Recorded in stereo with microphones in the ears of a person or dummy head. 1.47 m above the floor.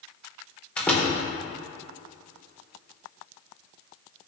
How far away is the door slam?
About 3 m.